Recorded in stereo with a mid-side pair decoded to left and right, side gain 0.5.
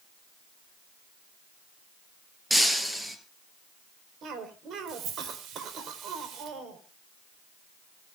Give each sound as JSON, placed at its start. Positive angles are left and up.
{"t": 2.5, "sound": "breaking glass", "azimuth_deg": -10, "distance_m": 4.0}
{"t": 4.2, "sound": "a cough", "azimuth_deg": -65, "distance_m": 4.0}